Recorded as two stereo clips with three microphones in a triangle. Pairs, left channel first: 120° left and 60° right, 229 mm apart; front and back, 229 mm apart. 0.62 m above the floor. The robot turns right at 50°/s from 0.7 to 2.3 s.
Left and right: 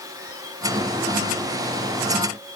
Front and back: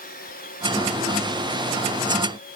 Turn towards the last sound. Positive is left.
No sound to turn to.